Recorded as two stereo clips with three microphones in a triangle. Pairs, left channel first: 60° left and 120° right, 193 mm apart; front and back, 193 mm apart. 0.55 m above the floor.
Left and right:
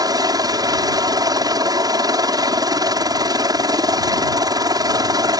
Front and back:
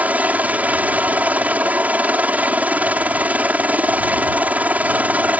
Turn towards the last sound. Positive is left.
turn(degrees=-115)